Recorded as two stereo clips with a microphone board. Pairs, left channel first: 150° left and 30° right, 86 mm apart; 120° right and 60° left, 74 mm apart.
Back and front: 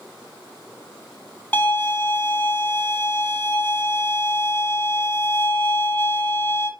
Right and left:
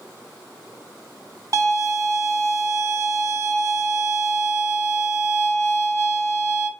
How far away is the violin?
About 1.7 m.